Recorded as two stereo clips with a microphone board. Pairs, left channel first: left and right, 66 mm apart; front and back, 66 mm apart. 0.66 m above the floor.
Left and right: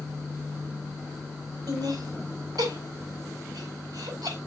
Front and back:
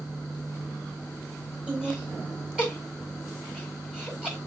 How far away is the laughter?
About 4.5 m.